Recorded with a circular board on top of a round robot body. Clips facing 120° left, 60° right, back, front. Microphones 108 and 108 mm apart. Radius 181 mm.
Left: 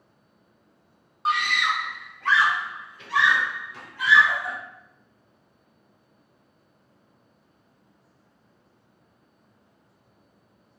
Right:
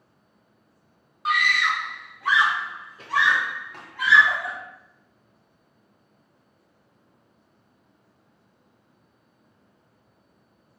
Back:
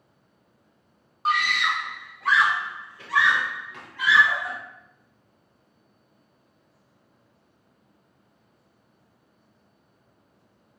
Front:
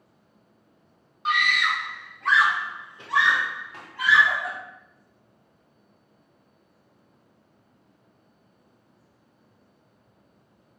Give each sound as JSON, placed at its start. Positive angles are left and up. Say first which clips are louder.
{"t": 1.2, "sound": "a scream", "louder": "right 1 dB, even", "azimuth_deg": 160, "distance_m": 1.1}